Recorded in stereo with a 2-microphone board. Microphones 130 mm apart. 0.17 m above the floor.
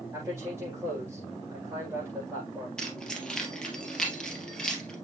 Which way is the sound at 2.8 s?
5° left (ahead or behind).